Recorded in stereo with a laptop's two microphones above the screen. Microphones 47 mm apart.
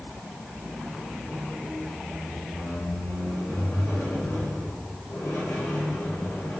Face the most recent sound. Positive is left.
turn(degrees=80)